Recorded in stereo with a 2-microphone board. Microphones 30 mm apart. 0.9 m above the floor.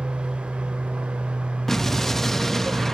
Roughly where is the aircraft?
Right.